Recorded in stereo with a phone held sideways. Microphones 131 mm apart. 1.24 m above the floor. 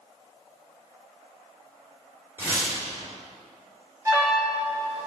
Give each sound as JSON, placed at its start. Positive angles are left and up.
{"t": 2.4, "sound": "tearing paper", "side_deg": -20, "distance_m": 1.7}
{"t": 4.0, "sound": "an alarm", "side_deg": -20, "distance_m": 1.2}